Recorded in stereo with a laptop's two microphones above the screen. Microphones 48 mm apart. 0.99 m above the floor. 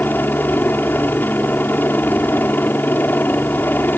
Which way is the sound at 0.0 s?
45° left (ahead or behind).